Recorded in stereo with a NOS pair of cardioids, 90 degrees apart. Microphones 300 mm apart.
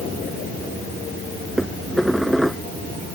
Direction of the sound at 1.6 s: Straight ahead.